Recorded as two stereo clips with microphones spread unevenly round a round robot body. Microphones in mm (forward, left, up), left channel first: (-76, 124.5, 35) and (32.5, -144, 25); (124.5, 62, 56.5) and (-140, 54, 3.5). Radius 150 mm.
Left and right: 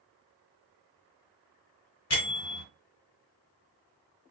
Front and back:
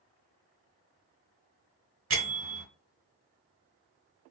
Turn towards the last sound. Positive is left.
turn(degrees=150)